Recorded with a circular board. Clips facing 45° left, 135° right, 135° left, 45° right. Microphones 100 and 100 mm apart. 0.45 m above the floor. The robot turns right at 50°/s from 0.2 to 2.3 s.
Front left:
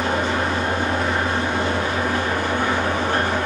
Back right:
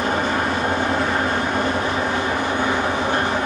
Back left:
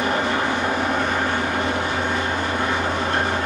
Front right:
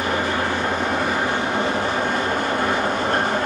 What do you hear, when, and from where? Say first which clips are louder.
0.0 s an engine running: back right 1 dB, back left 1 dB; 170° right, 1.0 m; by 3.5 s 65° right, 1.0 m